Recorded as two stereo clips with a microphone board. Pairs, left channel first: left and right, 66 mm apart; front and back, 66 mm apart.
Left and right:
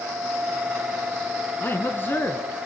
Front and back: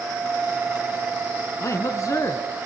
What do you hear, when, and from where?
1.6 s a man speaking: 35° left, 3 m